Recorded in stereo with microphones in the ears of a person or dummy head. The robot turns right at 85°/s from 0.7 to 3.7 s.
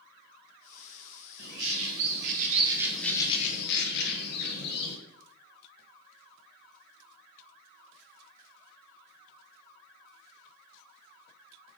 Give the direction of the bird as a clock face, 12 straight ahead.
5 o'clock.